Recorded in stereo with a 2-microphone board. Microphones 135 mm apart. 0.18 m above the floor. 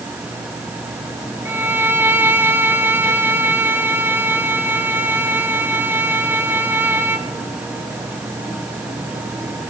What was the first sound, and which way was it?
A violin, 15° right (ahead or behind).